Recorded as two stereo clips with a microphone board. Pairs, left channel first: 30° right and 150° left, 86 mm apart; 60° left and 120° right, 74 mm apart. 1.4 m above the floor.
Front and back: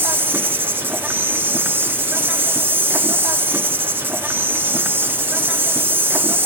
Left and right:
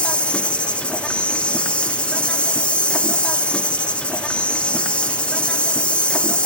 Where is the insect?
115° left, 0.9 m.